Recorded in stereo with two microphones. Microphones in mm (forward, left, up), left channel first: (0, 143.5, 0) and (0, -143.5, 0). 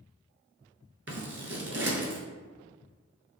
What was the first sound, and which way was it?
Scissors, 50° right (ahead or behind).